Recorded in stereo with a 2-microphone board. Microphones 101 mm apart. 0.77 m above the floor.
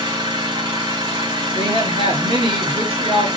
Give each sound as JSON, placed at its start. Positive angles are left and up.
{"t": 0.0, "sound": "an engine running", "side_deg": -50, "distance_m": 1.6}
{"t": 1.6, "sound": "a woman speaking", "side_deg": -65, "distance_m": 1.7}